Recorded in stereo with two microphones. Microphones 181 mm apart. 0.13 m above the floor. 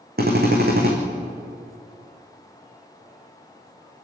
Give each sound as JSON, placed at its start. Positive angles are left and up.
{"t": 0.2, "sound": "a drill", "side_deg": -60, "distance_m": 4.5}